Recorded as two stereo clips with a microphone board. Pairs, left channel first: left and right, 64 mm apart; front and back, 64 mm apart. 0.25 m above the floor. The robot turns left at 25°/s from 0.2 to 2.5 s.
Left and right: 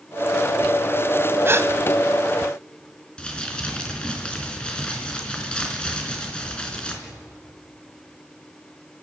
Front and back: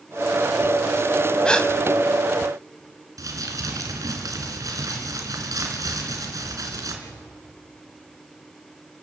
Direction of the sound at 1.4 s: 70° right.